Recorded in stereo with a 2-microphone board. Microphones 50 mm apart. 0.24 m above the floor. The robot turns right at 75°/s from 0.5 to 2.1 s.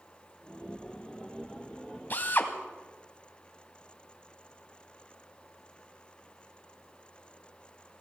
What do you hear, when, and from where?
2.1 s a drill: 40° left (ahead or behind), 1.3 m